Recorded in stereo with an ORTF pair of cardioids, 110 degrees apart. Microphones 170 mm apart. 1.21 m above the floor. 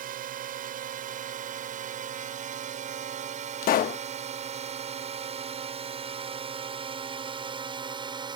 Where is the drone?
60° right; by 8.4 s 30° right.